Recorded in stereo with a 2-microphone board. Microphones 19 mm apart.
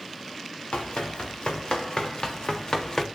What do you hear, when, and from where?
0.7 s running footsteps: 70° left (ahead or behind), 4.5 m; by 3.0 s 30° left (ahead or behind), 2.5 m